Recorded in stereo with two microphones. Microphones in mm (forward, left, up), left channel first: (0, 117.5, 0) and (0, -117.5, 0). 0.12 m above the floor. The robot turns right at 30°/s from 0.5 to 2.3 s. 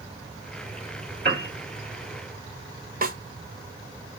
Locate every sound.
1.2 s a piano: 45° right (ahead or behind), 1.8 m; by 1.5 s 40° right (ahead or behind), 1.8 m
3.0 s a snare drum: 40° right (ahead or behind), 0.6 m